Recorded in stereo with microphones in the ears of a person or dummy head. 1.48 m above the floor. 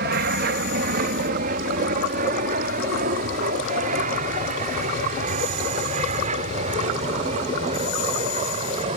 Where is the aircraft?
60° right (ahead or behind); by 9.0 s 40° right (ahead or behind).